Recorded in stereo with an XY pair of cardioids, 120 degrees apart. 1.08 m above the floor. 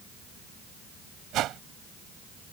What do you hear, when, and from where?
1.3 s a whoosh: 70° right